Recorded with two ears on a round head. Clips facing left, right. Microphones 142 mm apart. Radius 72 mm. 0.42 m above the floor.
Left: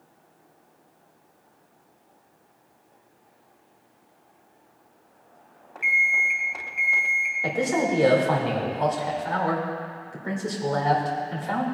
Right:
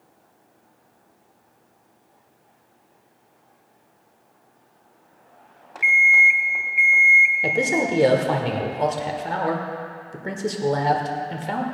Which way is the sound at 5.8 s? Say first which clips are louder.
Right 7 dB; 10° right (ahead or behind).